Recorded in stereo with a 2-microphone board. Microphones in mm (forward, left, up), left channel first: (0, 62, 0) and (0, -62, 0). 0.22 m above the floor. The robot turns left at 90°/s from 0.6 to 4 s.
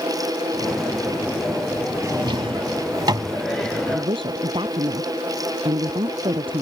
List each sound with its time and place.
2.0 s a drawer: 25° right (ahead or behind); by 3.4 s 20° right (ahead or behind)
3.9 s a woman speaking: 30° right (ahead or behind); by 6.6 s 40° right (ahead or behind)